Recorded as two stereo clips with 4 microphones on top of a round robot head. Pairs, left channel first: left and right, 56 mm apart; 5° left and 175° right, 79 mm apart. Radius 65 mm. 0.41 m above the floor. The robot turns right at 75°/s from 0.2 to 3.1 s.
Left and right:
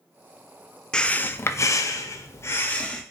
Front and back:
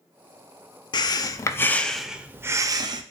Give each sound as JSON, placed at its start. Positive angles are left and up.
{"t": 0.9, "sound": "breathing", "azimuth_deg": 15, "distance_m": 0.5}